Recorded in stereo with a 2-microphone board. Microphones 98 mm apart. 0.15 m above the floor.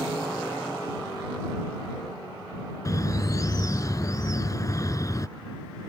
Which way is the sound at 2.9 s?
35° left (ahead or behind).